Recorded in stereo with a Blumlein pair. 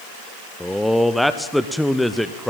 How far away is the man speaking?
About 0.8 m.